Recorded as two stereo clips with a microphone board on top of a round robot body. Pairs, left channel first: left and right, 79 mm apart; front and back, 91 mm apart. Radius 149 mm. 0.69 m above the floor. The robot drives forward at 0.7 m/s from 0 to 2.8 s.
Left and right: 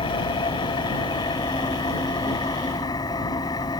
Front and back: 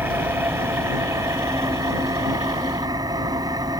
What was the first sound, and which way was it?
An engine running, 110° left.